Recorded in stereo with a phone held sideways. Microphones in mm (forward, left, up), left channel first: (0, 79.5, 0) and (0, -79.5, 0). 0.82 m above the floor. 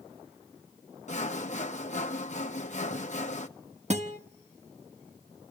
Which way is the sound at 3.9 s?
45° right (ahead or behind).